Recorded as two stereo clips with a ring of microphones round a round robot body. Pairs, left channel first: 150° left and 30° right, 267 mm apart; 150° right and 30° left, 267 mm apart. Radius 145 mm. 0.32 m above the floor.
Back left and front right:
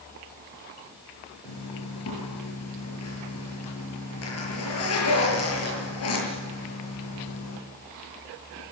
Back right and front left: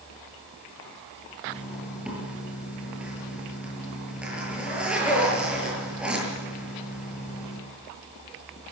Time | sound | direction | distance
1.4 | a zipper | 115° left | 7.5 m